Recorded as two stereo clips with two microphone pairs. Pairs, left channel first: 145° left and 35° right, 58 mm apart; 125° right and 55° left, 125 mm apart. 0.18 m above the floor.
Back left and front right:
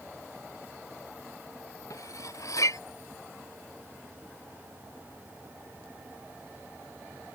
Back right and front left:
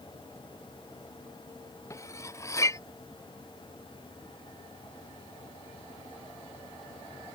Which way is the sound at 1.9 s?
170° left.